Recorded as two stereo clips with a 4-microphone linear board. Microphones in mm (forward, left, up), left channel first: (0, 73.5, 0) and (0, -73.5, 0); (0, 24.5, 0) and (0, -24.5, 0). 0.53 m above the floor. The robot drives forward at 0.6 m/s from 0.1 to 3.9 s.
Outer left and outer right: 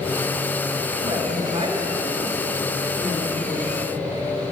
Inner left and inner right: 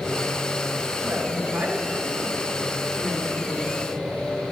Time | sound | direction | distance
1.0 | a woman speaking | 30° right (ahead or behind) | 2.5 m